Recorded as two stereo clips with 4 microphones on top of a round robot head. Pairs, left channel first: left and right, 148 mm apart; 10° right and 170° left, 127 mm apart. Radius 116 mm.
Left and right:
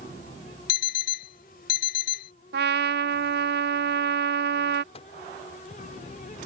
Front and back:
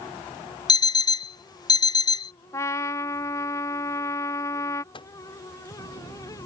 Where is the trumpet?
80° right.